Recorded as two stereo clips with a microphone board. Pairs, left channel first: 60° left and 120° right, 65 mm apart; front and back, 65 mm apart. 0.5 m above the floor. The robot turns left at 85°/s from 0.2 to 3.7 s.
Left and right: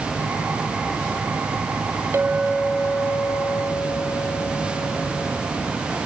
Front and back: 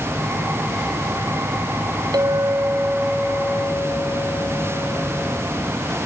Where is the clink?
175° right, 1.1 m; by 5.4 s 55° left, 1.1 m.